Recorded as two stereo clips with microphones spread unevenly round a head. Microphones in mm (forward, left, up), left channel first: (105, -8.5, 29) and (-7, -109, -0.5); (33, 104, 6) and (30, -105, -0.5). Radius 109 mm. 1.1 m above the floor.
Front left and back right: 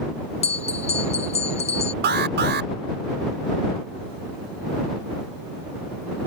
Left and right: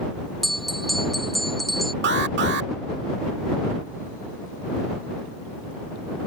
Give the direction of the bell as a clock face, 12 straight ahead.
12 o'clock.